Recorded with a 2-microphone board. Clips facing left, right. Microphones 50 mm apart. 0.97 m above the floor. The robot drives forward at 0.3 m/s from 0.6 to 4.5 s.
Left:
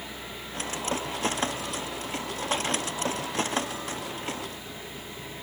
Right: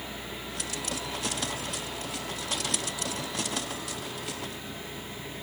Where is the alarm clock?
No alarm clock in this recording.